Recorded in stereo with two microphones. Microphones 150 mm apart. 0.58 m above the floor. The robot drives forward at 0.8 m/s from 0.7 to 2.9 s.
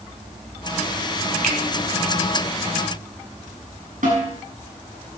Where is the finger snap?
75° right (ahead or behind), 3 m.